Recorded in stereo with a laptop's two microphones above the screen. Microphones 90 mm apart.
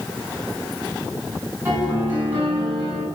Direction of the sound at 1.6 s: 20° right (ahead or behind).